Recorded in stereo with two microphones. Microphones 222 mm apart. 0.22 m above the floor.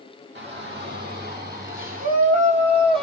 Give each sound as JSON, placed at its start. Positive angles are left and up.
{"t": 0.3, "sound": "a shout", "side_deg": -55, "distance_m": 3.0}